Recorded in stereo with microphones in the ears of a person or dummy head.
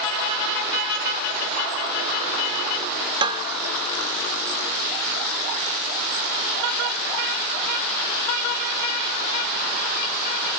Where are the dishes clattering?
25° right (ahead or behind).